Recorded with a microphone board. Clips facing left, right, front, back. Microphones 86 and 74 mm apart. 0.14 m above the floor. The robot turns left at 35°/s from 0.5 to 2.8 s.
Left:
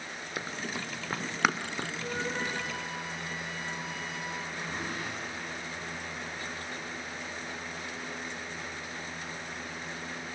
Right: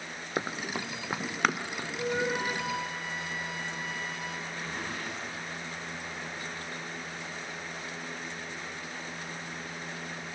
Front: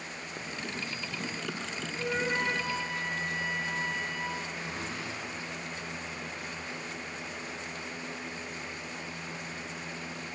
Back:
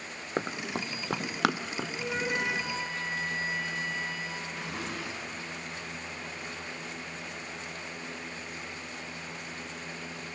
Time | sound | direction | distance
0.4 | running footsteps | 150° right | 0.9 m
2.0 | a flute | 75° right | 3 m
4.5 | a zipper | 170° left | 8.5 m